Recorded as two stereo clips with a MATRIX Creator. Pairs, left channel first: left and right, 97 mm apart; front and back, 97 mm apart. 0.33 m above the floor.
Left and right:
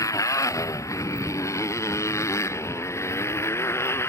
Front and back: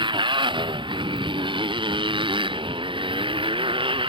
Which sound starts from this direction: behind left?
A motorcycle, at 0.0 s.